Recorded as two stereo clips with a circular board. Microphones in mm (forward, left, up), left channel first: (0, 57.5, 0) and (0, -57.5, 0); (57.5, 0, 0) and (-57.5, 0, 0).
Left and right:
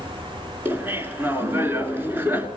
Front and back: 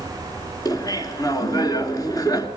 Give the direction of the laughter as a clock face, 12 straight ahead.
1 o'clock.